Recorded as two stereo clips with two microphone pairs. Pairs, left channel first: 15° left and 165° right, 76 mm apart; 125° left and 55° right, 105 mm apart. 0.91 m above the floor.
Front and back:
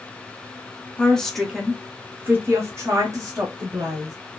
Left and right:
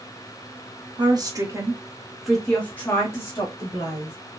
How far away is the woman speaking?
About 1.1 m.